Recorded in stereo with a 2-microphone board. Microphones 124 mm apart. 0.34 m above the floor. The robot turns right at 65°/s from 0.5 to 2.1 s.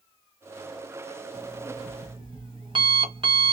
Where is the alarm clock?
175° right, 1.2 m; by 3.5 s 125° right, 1.2 m.